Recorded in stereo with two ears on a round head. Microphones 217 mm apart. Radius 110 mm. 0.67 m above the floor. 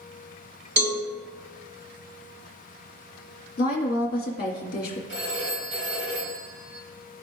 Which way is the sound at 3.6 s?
40° left (ahead or behind).